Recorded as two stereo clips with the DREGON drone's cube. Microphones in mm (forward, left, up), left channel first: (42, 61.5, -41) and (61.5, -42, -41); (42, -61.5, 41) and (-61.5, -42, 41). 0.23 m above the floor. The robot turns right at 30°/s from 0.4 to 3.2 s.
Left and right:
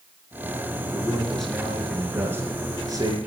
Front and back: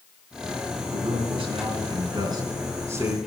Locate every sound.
0.9 s a man speaking: 170° left, 3 m; by 3.2 s 120° right, 3 m